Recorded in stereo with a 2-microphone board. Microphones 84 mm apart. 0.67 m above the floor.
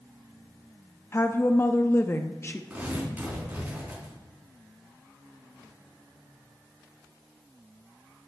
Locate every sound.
1.1 s a woman speaking: 30° left (ahead or behind), 0.5 m
2.7 s tearing paper: 20° right (ahead or behind), 4 m